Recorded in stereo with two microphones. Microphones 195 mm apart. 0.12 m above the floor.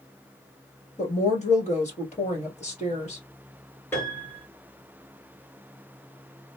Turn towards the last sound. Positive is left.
turn(degrees=10)  # may be behind; listen again after turning